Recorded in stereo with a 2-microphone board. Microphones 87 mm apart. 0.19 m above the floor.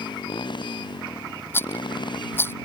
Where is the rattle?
25° left (ahead or behind).